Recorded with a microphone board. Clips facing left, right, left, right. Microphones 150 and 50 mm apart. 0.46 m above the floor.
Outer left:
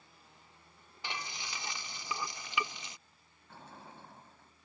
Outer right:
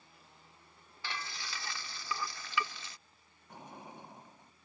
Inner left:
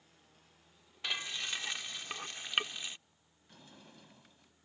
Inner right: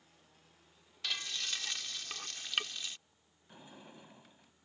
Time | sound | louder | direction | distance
1.0 | frying | outer left 1 dB, inner left 2 dB | 20° left (ahead or behind) | ?
3.5 | a sliding door | outer right 3 dB, inner right 3 dB | 15° right (ahead or behind) | ?